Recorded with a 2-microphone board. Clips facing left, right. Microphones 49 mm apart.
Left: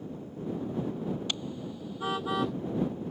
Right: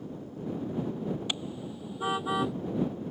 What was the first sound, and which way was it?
A car horn, 15° right (ahead or behind).